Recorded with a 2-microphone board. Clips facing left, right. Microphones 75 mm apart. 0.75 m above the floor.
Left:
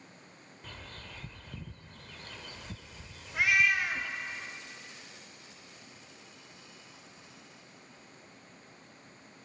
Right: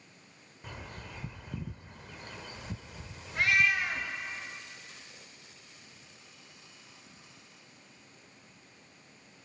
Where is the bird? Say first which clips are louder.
Right 3 dB; 15° right (ahead or behind), 0.7 m.